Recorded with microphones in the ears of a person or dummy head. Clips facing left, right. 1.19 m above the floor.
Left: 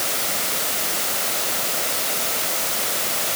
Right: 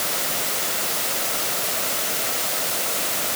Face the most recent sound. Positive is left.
No sound to turn to.